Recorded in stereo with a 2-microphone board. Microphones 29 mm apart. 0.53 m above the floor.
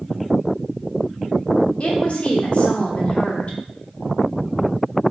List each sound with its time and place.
1.8 s a woman speaking: 45° left (ahead or behind), 1.2 m